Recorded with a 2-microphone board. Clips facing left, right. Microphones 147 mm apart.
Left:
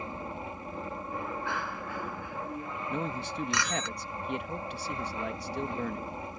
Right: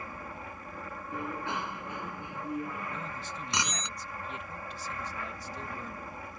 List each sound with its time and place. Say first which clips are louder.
0.0 s an aircraft: left 4 dB; 25° left (ahead or behind)
1.1 s a bicycle bell: right 1 dB; 20° right (ahead or behind)
2.9 s a man speaking: left 6 dB; 65° left (ahead or behind)